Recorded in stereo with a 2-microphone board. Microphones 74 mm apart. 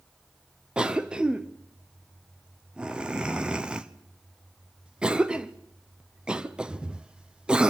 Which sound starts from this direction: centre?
A cough, at 0.8 s.